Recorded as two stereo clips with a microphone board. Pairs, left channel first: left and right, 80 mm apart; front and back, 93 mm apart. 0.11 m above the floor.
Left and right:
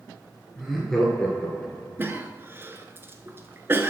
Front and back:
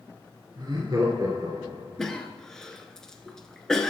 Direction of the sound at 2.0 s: 80° right.